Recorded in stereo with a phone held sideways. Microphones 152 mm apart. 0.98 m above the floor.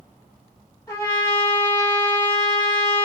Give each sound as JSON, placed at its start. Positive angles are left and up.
{"t": 0.9, "sound": "a trumpet", "side_deg": 20, "distance_m": 1.9}